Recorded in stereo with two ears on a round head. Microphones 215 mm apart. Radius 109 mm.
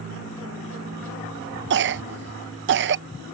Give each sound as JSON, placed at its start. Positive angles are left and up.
{"t": 1.7, "sound": "a cough", "side_deg": -50}